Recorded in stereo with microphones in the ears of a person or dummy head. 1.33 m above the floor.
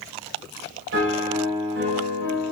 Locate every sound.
0.9 s a piano: 80° right, 4.5 m